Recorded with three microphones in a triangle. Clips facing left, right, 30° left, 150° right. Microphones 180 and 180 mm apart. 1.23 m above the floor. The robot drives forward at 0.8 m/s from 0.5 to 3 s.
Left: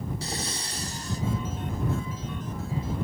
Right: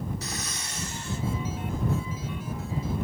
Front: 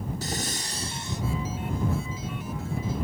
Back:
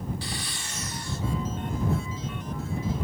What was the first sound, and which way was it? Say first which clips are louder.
Breathing: left 3 dB, front 4 dB; 45° left.